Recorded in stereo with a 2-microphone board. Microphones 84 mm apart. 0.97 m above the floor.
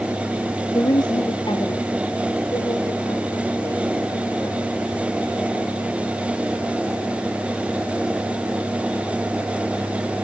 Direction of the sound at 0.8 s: 50° left (ahead or behind).